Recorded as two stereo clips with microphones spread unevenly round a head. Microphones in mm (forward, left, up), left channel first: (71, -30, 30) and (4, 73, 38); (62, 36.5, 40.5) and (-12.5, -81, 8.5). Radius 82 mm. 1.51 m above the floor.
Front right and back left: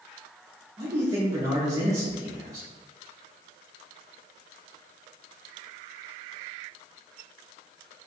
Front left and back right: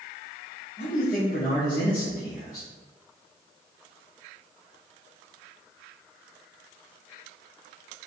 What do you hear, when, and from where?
0.8 s a man speaking: 70° left, 0.6 m